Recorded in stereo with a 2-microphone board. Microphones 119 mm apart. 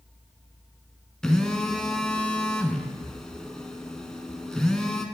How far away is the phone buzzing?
About 1.5 m.